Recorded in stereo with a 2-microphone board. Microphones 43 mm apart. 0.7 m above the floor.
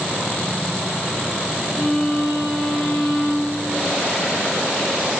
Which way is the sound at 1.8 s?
15° right (ahead or behind).